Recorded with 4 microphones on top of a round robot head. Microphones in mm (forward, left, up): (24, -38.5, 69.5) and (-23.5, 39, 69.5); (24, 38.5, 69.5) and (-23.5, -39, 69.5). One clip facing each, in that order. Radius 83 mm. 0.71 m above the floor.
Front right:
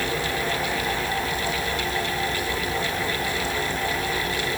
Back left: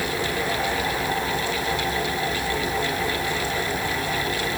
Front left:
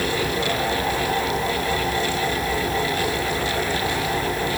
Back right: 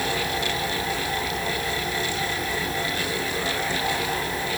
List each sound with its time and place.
Only background noise.